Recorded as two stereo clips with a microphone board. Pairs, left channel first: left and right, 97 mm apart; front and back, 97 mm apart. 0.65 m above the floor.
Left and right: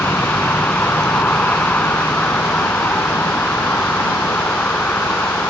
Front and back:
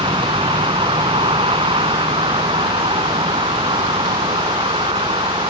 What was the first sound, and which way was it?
A vehicle, 160° left.